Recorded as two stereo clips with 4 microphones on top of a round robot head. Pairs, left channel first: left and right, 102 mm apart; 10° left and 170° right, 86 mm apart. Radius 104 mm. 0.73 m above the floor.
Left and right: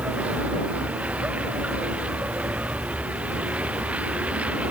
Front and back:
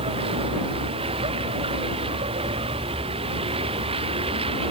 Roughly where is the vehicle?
Behind.